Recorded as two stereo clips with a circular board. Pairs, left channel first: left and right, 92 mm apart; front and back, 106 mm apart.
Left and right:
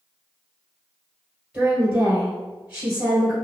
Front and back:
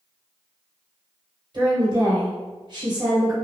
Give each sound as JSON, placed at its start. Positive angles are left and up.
{"t": 1.5, "sound": "a woman speaking", "azimuth_deg": -165, "distance_m": 1.9}